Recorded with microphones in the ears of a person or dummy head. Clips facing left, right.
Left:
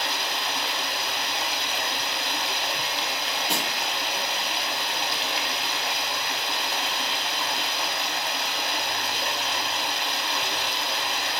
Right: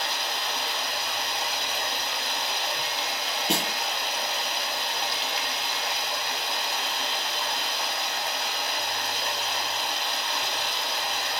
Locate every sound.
0.0 s running water: 55° left (ahead or behind), 0.7 m
3.5 s a snare drum: 30° right (ahead or behind), 0.8 m